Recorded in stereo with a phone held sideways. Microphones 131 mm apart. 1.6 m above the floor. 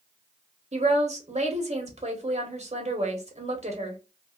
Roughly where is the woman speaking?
Right.